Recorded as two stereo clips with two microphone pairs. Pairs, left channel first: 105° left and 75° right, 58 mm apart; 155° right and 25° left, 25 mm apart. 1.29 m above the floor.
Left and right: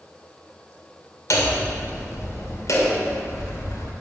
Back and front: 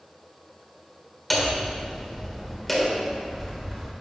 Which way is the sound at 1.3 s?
125° left.